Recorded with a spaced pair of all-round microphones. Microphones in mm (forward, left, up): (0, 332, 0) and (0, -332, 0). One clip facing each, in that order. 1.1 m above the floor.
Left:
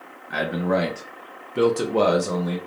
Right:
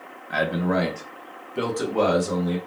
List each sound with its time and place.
0.3 s a man speaking: 10° right (ahead or behind), 0.6 m; by 2.6 s 70° left (ahead or behind), 1.0 m